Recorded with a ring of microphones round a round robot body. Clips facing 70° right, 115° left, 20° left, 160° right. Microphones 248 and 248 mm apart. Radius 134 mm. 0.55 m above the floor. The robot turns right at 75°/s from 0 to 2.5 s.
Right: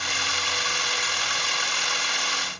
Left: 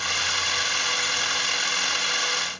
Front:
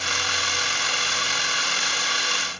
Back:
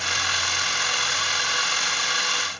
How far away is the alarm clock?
No alarm clock in this recording.